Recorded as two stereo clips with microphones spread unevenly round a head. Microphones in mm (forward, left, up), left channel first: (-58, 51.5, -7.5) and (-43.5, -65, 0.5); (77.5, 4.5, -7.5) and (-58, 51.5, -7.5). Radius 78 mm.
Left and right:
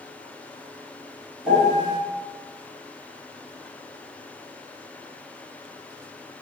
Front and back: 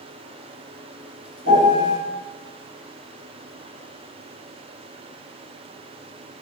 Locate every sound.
1.4 s a piano: 165° right, 1.4 m